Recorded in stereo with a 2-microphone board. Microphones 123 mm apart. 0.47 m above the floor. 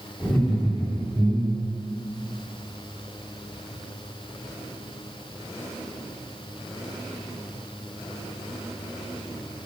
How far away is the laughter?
About 1.5 m.